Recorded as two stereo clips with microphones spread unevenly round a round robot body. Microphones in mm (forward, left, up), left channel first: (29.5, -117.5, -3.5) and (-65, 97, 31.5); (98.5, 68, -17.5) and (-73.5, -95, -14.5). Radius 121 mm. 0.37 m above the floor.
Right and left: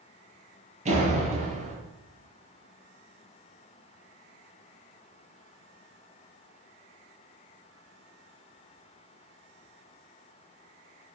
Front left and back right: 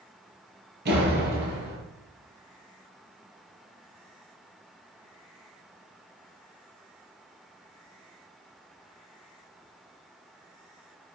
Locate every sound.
0.8 s a door slam: 175° left, 7.5 m